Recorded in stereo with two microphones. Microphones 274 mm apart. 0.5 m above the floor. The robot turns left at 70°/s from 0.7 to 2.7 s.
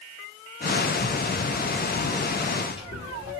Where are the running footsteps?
80° right, 3.5 m; by 3.3 s 45° left (ahead or behind), 3.5 m.